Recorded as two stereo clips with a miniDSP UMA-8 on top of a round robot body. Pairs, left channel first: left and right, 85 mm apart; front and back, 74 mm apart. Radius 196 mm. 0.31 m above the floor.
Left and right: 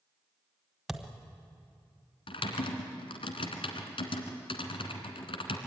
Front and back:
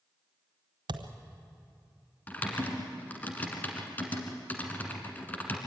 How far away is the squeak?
No squeak in this recording.